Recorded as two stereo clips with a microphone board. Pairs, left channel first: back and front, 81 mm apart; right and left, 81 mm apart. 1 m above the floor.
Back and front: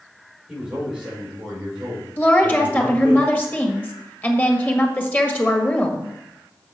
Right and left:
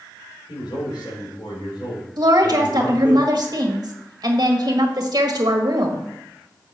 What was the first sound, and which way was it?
A man speaking, 80° right.